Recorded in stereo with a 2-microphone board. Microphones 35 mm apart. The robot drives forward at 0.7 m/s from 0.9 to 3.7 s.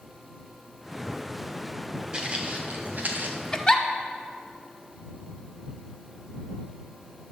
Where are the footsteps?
25° right (ahead or behind), 1.7 m; by 3.4 s 55° right (ahead or behind), 1.5 m.